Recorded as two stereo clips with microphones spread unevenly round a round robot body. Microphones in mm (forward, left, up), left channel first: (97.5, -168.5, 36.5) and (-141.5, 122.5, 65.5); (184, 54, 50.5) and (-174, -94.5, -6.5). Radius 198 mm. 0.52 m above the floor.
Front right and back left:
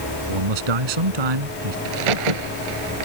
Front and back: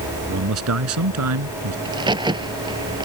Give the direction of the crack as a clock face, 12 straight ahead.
8 o'clock.